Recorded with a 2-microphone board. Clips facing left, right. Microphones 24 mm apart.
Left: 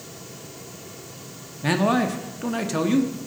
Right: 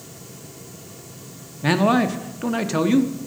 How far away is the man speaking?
About 0.5 m.